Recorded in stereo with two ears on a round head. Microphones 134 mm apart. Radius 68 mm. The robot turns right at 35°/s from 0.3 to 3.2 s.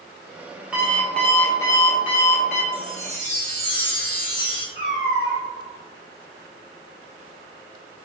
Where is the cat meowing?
45° left (ahead or behind), 1.4 m.